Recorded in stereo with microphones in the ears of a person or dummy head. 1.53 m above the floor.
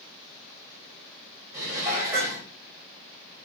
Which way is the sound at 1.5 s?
10° right (ahead or behind).